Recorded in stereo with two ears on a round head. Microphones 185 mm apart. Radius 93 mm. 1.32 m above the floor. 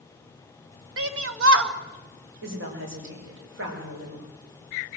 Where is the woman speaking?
60° right (ahead or behind), 6 m.